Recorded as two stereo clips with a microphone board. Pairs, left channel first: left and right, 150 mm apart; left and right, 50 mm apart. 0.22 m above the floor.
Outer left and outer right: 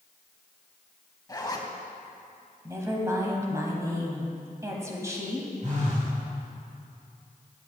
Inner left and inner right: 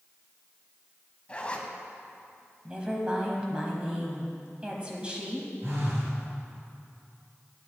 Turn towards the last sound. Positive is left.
turn(degrees=-55)  # may be behind; listen again after turning